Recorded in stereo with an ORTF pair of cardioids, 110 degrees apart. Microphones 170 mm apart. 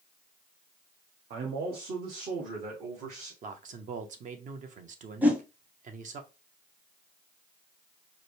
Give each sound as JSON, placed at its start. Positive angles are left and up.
{"t": 1.3, "sound": "a man speaking", "azimuth_deg": -70, "distance_m": 1.0}
{"t": 3.4, "sound": "a man speaking", "azimuth_deg": -50, "distance_m": 0.9}
{"t": 5.2, "sound": "a whoosh", "azimuth_deg": -10, "distance_m": 0.9}